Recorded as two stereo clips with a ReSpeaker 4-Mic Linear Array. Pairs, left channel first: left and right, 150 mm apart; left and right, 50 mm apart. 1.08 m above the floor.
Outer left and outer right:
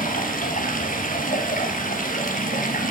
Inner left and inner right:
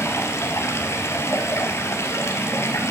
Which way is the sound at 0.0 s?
65° left (ahead or behind).